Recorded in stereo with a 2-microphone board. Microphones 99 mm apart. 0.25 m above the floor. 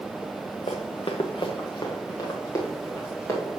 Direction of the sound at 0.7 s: 70° left (ahead or behind).